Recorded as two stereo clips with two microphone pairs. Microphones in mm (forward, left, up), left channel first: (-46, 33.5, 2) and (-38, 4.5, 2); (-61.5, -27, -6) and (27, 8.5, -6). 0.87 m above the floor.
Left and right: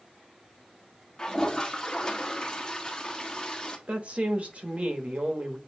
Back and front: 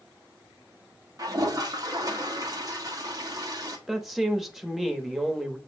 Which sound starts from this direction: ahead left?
A toilet flushing, at 1.2 s.